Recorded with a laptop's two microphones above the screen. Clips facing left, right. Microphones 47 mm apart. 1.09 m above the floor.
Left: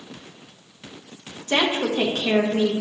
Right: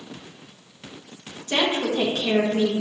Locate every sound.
1.5 s a woman speaking: 35° left (ahead or behind), 1.3 m